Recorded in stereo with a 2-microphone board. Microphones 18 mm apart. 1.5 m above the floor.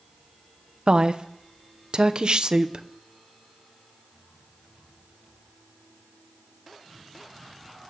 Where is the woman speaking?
60° right (ahead or behind), 0.7 m.